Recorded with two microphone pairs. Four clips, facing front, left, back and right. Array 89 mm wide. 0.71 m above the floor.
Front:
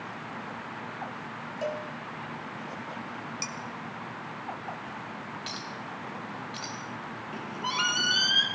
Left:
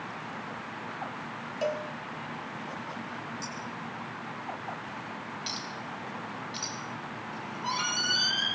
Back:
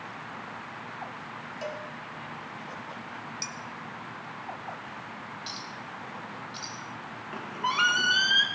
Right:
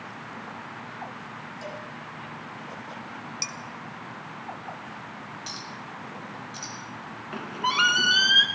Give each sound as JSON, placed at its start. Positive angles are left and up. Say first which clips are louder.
{"t": 1.6, "sound": "a cowbell", "louder": "left 9 dB, front 4 dB", "azimuth_deg": 70, "distance_m": 1.5}
{"t": 3.4, "sound": "dishes clattering", "louder": "even, front 2 dB", "azimuth_deg": -50, "distance_m": 1.3}
{"t": 5.5, "sound": "a clink", "louder": "left 1 dB, front 2 dB", "azimuth_deg": 20, "distance_m": 2.5}
{"t": 7.3, "sound": "a squeak", "louder": "right 8 dB, back 4 dB", "azimuth_deg": -130, "distance_m": 1.7}